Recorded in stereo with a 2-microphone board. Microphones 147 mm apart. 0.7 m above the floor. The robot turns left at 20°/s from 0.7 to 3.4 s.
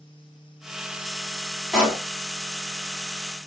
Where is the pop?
Centre (ahead or behind), 2 m; by 2.0 s 10° right (ahead or behind), 2 m.